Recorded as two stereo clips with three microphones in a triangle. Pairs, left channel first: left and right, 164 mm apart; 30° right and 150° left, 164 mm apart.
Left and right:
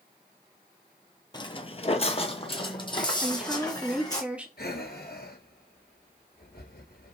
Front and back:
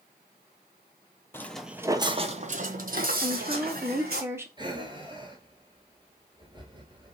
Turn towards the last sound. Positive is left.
turn(degrees=90)